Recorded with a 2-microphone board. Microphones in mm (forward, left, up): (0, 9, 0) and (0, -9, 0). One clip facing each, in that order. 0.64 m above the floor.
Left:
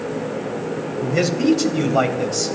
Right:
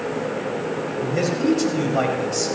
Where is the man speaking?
35° left (ahead or behind), 3 m; by 2.5 s 10° left (ahead or behind), 3 m.